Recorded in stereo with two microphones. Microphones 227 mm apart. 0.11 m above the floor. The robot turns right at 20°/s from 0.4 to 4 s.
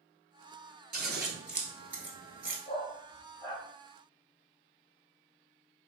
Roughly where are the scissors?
Right.